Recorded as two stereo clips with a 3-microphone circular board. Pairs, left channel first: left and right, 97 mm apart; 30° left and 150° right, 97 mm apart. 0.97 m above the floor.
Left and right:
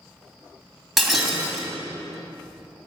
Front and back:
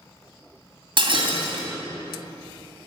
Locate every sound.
1.0 s breaking glass: straight behind, 2.5 m